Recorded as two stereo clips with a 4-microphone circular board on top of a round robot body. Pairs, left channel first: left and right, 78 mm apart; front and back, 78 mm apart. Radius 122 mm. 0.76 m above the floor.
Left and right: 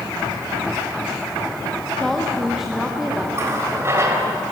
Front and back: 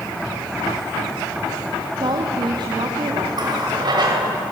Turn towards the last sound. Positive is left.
turn(degrees=-145)